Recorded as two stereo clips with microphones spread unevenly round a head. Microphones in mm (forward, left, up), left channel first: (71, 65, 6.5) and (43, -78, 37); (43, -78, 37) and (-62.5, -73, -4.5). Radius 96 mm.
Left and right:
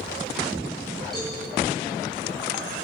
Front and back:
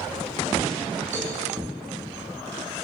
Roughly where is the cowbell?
Behind.